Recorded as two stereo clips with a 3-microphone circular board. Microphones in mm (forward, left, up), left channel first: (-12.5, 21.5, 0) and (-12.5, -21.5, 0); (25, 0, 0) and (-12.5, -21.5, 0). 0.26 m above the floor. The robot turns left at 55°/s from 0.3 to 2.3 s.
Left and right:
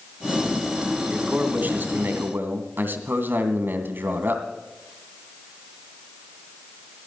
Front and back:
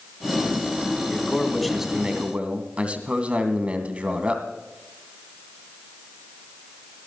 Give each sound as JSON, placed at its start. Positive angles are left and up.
{"t": 1.1, "sound": "a man speaking", "azimuth_deg": -30, "distance_m": 2.5}